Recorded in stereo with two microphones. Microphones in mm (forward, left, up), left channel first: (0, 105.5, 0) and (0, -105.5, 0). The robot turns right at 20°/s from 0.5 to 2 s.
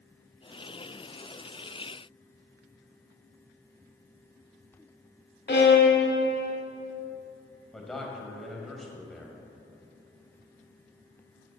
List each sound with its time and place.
5.5 s a violin: 55° left (ahead or behind), 1.1 m
7.7 s a man speaking: centre (ahead or behind), 1.6 m